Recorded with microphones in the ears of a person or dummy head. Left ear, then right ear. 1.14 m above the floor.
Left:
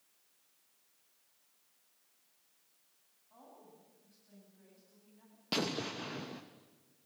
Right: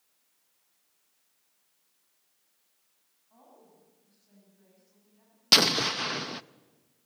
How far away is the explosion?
About 0.6 m.